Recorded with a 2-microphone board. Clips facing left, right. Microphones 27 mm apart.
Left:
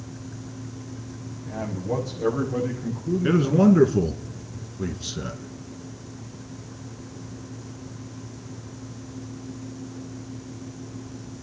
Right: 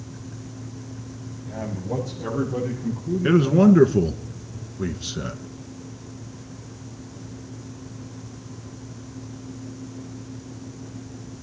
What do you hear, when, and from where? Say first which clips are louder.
1.5 s a man speaking: left 1 dB; 30° left (ahead or behind), 7.5 m; by 3.9 s 25° left (ahead or behind), 9.5 m
3.2 s a man speaking: right 2 dB; 20° right (ahead or behind), 1.4 m